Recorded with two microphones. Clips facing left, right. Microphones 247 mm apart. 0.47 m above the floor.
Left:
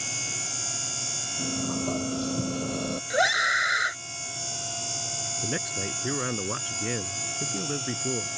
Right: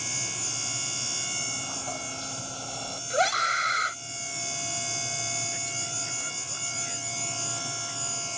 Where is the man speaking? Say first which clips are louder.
Left 9 dB; 80° left.